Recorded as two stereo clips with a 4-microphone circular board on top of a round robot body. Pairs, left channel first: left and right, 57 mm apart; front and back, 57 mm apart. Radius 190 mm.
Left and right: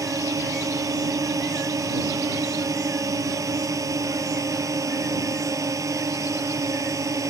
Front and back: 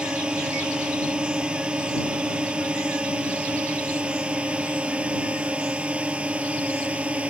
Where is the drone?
110° right; by 7.3 s 115° right.